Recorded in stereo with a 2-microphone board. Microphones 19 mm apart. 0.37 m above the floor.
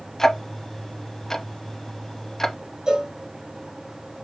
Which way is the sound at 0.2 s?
20° left (ahead or behind).